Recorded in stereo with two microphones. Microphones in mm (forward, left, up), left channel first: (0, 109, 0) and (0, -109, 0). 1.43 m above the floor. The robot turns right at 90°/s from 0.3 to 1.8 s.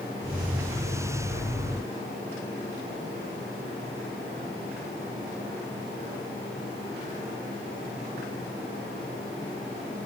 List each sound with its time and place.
Only background noise.